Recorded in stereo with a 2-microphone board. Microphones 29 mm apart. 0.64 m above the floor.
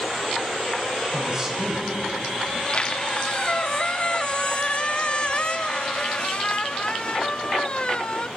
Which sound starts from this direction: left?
A squeak, at 2.5 s.